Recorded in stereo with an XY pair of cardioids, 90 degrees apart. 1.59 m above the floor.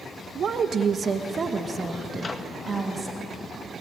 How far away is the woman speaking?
About 1.8 m.